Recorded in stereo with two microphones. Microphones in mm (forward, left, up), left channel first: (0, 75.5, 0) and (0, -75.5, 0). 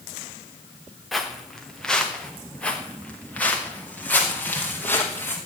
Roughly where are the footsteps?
Centre.